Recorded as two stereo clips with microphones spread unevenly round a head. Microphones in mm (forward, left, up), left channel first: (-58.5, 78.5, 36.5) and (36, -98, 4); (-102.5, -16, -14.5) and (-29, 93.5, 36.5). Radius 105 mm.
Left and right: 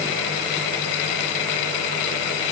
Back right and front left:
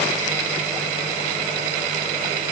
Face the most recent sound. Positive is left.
No sound to turn to.